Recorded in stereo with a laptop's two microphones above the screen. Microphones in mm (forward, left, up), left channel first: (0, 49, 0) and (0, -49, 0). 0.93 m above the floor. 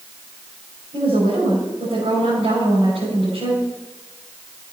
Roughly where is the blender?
I don't hear a blender.